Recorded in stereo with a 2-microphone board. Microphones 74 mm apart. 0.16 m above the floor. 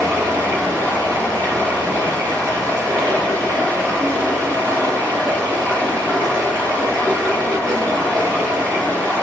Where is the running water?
50° right (ahead or behind), 2.5 m.